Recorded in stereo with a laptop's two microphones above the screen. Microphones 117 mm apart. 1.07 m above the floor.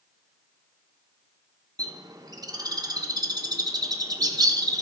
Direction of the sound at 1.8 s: 35° right (ahead or behind).